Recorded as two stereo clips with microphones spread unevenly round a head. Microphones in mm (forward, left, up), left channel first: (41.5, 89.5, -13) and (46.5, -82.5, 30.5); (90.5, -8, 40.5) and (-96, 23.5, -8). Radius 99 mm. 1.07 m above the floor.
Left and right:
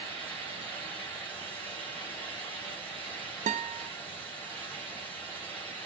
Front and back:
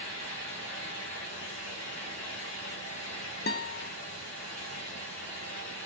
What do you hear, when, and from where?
0.0 s a fan: 15° left, 3.5 m
3.5 s a guitar: 50° right, 0.7 m